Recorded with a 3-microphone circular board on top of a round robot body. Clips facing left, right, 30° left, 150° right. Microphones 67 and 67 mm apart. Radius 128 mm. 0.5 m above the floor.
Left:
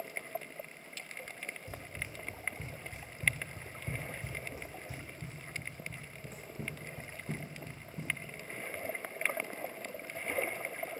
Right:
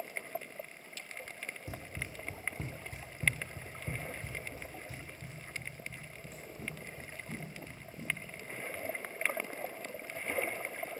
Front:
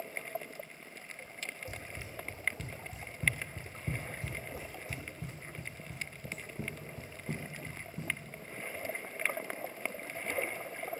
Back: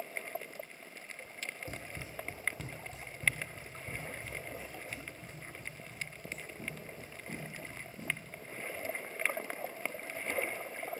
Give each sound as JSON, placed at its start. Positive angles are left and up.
{"t": 1.7, "sound": "running footsteps", "azimuth_deg": -95, "distance_m": 1.1}